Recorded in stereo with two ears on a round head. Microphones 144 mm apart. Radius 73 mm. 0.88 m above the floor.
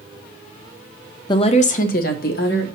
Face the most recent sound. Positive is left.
turn(degrees=70)  # may be behind; listen again after turning